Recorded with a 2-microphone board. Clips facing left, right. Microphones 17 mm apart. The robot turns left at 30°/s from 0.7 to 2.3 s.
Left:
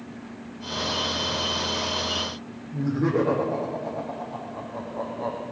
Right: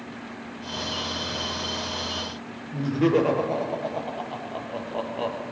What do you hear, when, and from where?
2.7 s laughter: 70° right (ahead or behind), 6.5 m